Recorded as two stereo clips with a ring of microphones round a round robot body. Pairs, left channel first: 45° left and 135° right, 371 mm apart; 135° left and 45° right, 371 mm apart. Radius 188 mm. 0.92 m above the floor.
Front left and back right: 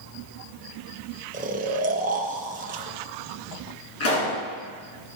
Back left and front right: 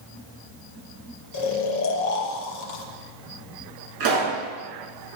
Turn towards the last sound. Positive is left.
turn(degrees=-10)